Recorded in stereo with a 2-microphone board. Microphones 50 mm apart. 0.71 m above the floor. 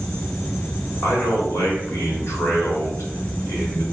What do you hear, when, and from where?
1.0 s a man speaking: 65° left (ahead or behind), 2 m